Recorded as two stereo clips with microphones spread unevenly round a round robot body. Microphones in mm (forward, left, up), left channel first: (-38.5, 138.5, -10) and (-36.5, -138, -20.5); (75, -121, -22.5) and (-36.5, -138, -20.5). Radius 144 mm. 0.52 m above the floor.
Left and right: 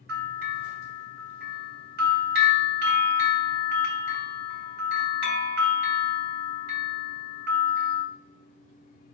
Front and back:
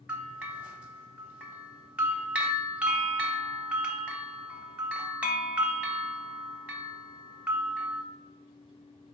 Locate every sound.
0.1 s a bell: 100° right, 1.0 m